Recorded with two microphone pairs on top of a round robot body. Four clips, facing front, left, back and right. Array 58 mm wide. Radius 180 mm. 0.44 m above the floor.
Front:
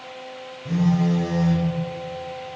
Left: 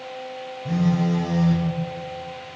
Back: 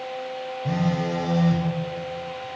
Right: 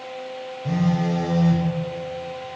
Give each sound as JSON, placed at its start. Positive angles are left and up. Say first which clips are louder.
{"t": 0.7, "sound": "a phone buzzing", "louder": "even, front 4 dB", "azimuth_deg": -145, "distance_m": 4.0}